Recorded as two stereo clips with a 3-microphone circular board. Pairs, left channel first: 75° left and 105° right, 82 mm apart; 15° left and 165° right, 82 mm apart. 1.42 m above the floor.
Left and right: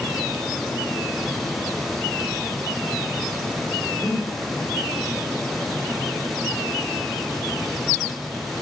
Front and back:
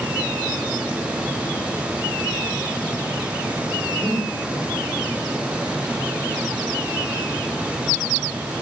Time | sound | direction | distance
4.0 | breathing | 150° left | 2.5 m